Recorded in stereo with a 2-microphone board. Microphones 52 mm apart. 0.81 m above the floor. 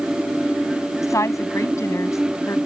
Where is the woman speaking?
70° left (ahead or behind).